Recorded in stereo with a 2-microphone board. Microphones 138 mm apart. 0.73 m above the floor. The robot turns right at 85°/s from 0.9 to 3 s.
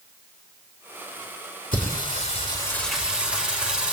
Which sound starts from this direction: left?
Singing, at 1.7 s.